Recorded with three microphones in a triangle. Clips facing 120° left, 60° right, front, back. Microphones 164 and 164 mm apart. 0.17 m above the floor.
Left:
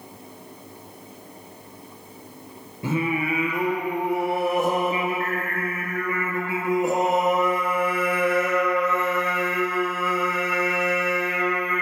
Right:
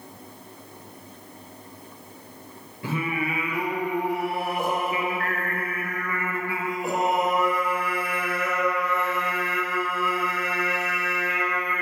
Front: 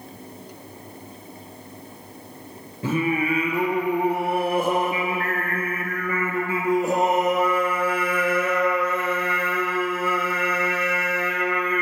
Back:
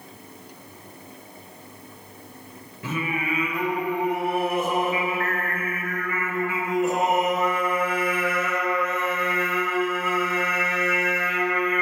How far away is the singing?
About 1.5 m.